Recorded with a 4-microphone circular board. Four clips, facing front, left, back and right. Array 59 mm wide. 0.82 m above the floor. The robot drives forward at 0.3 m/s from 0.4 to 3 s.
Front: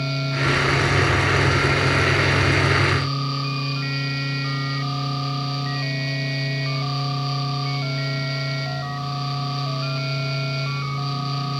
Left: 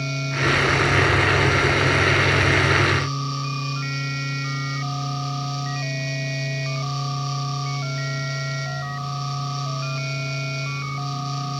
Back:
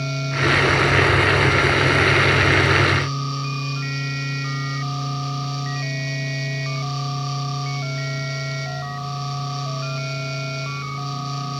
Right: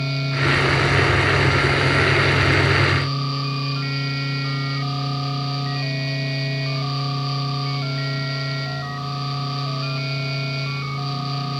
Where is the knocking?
No knocking in this recording.